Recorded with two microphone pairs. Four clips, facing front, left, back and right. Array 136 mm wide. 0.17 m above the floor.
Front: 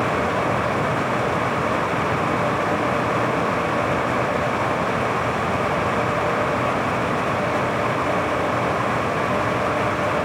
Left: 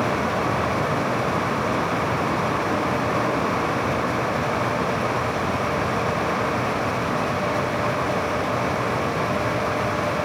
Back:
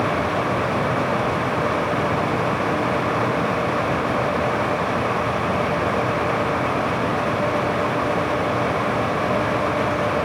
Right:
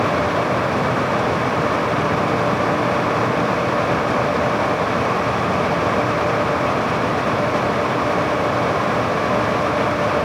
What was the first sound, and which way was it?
Only background noise.